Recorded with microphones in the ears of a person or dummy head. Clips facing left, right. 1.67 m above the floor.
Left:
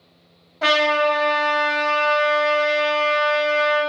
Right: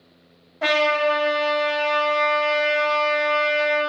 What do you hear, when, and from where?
0.6 s a trumpet: 5° right (ahead or behind), 0.6 m